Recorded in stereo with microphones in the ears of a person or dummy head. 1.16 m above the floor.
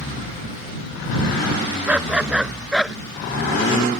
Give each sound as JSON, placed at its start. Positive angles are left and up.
{"t": 1.9, "sound": "a dog barking", "side_deg": -5}